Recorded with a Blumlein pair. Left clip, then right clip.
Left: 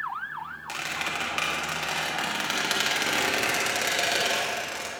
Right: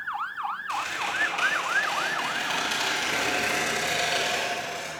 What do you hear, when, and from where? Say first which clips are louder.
0.7 s a squeak: left 1 dB; 65° left, 1.6 m